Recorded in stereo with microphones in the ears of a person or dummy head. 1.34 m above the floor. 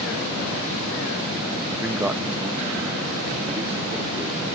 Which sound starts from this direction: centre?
A man speaking, at 1.7 s.